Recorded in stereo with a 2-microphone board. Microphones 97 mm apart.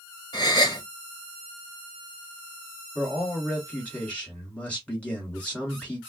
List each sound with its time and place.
0.3 s a gasp: 40° left (ahead or behind), 1.2 m
3.0 s a man speaking: 10° left (ahead or behind), 1.8 m